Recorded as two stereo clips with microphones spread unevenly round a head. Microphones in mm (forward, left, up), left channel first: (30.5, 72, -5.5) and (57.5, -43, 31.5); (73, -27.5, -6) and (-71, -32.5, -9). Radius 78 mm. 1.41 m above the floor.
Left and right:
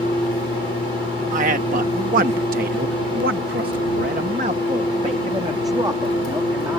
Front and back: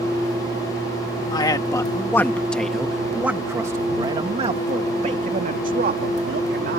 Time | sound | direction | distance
1.3 | a man speaking | 60° right | ?